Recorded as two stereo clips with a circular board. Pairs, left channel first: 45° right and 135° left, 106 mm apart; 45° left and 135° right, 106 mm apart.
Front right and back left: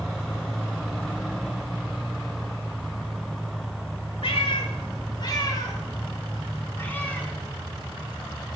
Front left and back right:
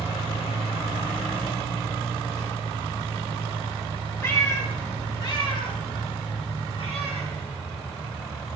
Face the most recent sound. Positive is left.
turn(degrees=40)